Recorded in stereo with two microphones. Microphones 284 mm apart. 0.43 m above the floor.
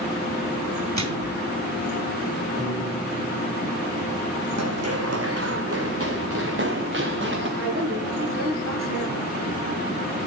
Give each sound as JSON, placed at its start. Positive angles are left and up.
{"t": 1.0, "sound": "a microwave", "side_deg": -70, "distance_m": 3.0}
{"t": 2.6, "sound": "a piano", "side_deg": -25, "distance_m": 4.5}
{"t": 4.6, "sound": "running footsteps", "side_deg": -65, "distance_m": 1.7}
{"t": 7.6, "sound": "a woman speaking", "side_deg": -45, "distance_m": 8.5}